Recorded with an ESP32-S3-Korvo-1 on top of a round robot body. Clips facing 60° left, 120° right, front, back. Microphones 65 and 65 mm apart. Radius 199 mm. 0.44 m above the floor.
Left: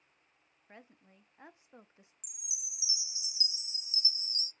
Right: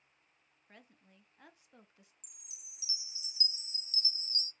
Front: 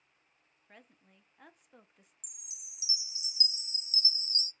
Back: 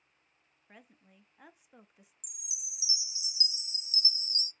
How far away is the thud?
I don't hear a thud.